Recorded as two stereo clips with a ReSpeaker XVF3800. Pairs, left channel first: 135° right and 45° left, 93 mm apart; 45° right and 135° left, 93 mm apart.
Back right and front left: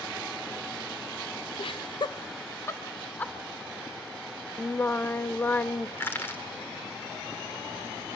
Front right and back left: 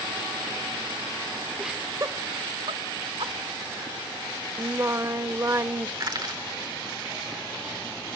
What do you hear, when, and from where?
1.6 s laughter: 135° right, 0.5 m; by 3.3 s 155° left, 1.3 m
4.6 s singing: 170° left, 0.5 m
6.0 s crushing: 165° left, 1.9 m